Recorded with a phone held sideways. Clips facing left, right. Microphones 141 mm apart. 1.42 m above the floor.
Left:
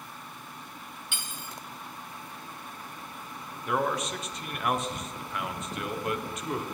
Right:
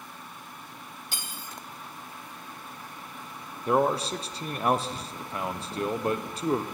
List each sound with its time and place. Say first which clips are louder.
1.1 s cutlery clinking: right 1 dB; 40° right (ahead or behind), 1.0 m
3.7 s a man speaking: right 5 dB; 30° right (ahead or behind), 0.6 m